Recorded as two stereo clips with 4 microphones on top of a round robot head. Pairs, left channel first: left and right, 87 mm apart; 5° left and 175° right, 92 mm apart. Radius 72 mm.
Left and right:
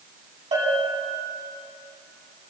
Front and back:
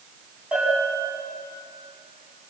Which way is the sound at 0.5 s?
95° right.